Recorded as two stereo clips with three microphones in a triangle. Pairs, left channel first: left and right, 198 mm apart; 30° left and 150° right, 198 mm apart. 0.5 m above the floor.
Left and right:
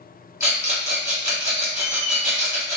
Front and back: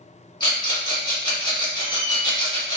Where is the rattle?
25° right, 1.4 m.